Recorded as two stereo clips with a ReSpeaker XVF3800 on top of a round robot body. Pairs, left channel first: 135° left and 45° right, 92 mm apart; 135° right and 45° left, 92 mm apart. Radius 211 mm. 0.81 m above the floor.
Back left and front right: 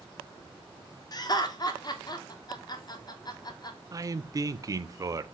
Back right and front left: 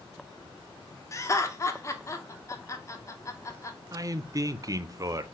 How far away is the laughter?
About 1.0 m.